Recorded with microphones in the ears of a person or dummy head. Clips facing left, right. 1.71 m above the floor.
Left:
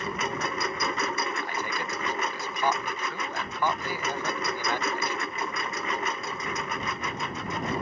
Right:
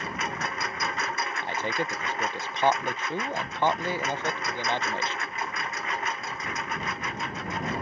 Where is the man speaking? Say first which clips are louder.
Right 3 dB; 20° right (ahead or behind).